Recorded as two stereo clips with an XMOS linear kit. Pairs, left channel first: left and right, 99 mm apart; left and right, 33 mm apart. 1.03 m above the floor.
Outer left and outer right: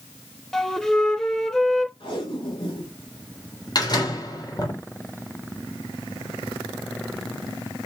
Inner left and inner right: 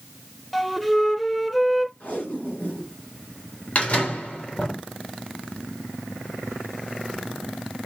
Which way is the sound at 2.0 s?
60° left (ahead or behind).